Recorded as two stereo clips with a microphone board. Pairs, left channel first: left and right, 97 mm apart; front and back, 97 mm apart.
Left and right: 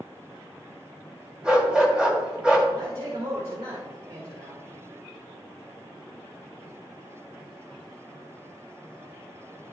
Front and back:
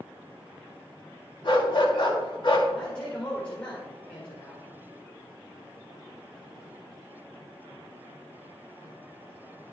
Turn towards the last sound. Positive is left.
turn(degrees=-75)